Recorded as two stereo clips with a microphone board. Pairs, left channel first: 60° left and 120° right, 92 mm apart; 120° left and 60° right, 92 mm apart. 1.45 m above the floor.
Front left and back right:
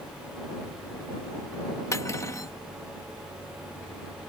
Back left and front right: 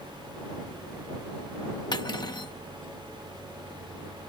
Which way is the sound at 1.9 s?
105° left.